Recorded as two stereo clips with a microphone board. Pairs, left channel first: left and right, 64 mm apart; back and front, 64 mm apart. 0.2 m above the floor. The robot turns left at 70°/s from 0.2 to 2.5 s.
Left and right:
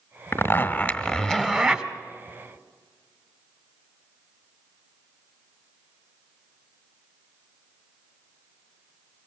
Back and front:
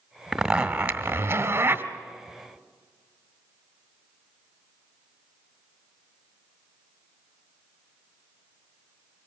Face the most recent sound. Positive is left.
turn(degrees=-65)